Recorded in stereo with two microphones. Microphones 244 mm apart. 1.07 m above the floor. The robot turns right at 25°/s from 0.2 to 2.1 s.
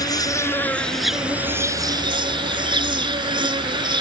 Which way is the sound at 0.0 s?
160° left.